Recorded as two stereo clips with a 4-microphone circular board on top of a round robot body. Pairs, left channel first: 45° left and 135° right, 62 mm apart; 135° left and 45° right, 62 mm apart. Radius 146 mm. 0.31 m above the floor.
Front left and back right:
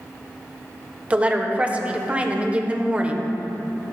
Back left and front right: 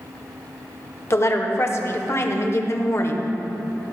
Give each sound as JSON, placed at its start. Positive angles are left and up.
{"t": 1.1, "sound": "a woman speaking", "azimuth_deg": 160, "distance_m": 1.4}